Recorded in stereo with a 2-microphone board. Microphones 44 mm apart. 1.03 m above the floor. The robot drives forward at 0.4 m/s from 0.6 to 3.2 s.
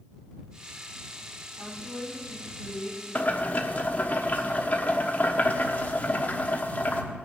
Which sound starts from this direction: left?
Boiling, at 3.1 s.